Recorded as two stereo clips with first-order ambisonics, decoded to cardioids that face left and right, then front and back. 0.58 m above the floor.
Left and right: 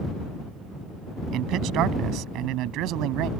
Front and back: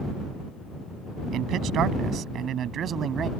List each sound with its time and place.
1.3 s a man speaking: 130° right; by 3.3 s 120° right